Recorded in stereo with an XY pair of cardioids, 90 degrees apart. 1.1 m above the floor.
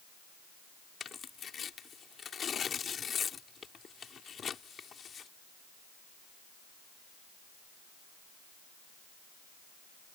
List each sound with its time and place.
1.0 s tearing paper: 55° left